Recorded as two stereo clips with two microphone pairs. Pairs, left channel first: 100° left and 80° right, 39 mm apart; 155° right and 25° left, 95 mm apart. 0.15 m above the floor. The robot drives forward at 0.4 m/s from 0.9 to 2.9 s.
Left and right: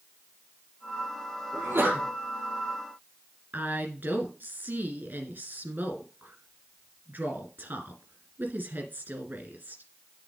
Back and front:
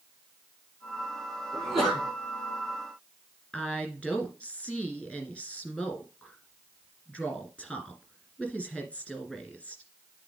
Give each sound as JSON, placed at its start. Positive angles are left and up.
{"t": 1.5, "sound": "a sneeze", "azimuth_deg": -70, "distance_m": 3.5}
{"t": 3.5, "sound": "a woman speaking", "azimuth_deg": -80, "distance_m": 1.9}